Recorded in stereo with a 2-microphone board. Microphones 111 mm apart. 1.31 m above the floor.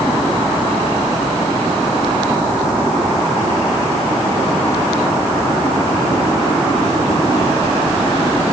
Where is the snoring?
I don't hear snoring.